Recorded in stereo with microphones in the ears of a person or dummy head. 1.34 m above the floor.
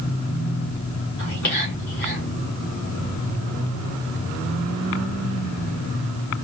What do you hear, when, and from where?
1.2 s whispering: 60° left (ahead or behind), 1.9 m